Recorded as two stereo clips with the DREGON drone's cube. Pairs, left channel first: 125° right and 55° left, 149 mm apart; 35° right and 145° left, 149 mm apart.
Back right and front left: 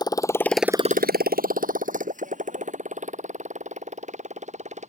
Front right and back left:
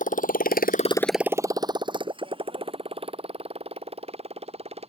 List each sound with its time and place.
0.0 s a motorcycle: 60° right; by 4.9 s 100° left